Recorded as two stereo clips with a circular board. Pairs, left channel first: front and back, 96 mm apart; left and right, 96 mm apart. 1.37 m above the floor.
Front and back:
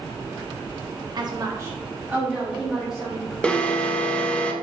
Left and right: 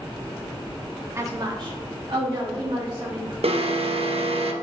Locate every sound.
1.1 s a woman speaking: 150° right, 0.7 m; by 3.3 s 90° right, 1.9 m
3.4 s an alarm: 80° right, 0.6 m